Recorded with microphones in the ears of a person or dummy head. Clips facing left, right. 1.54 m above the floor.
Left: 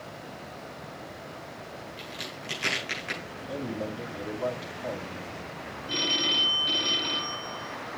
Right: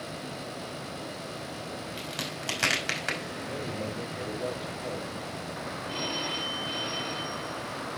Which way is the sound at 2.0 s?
65° right (ahead or behind).